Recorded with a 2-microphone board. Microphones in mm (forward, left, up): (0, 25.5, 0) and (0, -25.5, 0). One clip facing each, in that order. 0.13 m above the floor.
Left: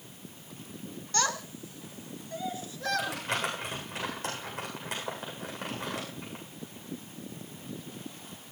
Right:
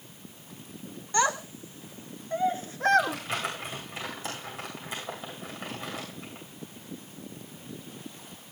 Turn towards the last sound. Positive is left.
turn(degrees=75)  # may be behind; listen again after turning